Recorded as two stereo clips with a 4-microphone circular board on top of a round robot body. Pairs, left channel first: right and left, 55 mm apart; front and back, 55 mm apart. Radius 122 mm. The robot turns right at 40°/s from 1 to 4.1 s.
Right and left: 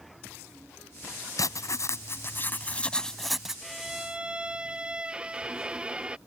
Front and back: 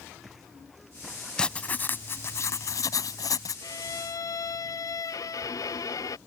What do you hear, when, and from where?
1.4 s writing: 80° right; by 3.6 s 10° left
3.6 s a violin: straight ahead; by 6.2 s 20° left